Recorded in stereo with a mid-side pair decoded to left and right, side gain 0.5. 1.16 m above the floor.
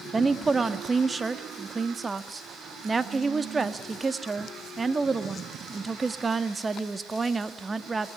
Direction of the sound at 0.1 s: 20° right.